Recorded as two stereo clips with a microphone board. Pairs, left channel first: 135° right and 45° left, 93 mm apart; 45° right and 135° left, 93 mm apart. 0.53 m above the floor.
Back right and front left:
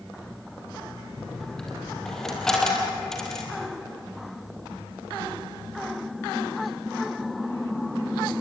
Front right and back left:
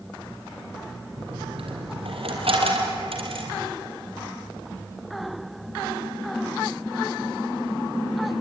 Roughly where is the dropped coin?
Behind left.